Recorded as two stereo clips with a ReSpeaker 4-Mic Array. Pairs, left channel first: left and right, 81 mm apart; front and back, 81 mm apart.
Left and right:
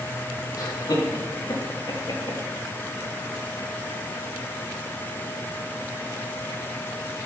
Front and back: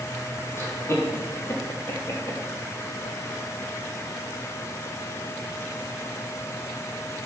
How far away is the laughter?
About 4 m.